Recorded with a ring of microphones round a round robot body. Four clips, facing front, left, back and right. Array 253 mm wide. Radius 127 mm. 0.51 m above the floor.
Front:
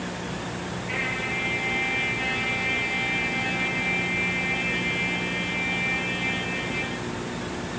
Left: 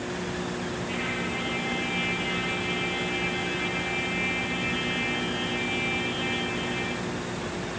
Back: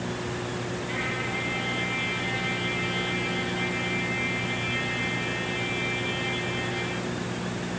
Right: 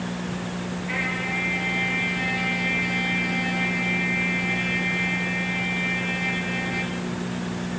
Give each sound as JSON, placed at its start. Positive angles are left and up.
{"t": 0.9, "sound": "a trumpet", "azimuth_deg": -85, "distance_m": 5.5}